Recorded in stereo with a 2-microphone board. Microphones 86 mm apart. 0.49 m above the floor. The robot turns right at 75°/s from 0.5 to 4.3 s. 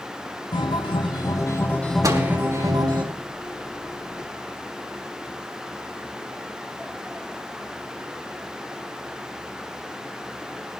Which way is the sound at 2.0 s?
45° right (ahead or behind).